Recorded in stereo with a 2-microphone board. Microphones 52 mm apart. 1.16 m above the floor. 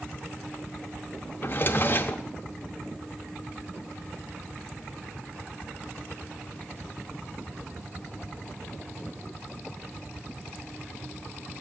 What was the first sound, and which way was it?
A drawer, 40° left (ahead or behind).